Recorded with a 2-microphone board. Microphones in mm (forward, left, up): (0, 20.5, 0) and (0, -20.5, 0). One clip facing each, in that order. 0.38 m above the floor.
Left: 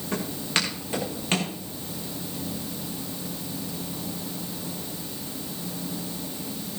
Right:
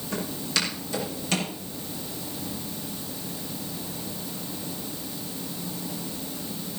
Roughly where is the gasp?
No gasp in this recording.